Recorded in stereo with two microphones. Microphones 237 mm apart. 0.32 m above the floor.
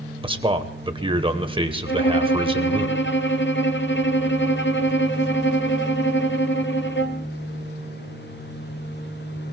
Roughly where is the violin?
Left.